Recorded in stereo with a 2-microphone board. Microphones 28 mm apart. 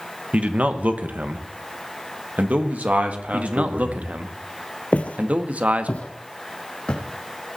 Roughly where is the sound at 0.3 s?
Right.